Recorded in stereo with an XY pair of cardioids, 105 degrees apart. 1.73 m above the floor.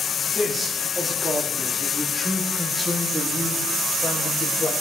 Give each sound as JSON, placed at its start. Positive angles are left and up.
{"t": 0.3, "sound": "a man speaking", "azimuth_deg": -25, "distance_m": 4.5}